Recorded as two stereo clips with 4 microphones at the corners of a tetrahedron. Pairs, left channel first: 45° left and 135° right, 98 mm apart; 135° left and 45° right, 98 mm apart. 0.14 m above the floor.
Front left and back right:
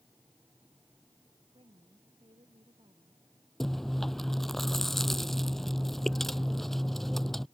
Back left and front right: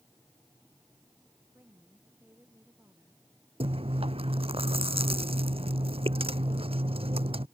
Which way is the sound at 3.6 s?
40° right.